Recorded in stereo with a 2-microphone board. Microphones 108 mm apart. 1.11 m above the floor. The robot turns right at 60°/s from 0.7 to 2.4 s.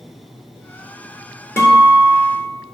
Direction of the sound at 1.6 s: 25° left.